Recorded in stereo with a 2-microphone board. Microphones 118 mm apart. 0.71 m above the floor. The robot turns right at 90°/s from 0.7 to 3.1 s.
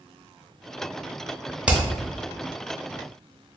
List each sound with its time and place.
1.7 s hammering: 10° right (ahead or behind), 0.6 m; by 1.8 s 20° right (ahead or behind), 0.6 m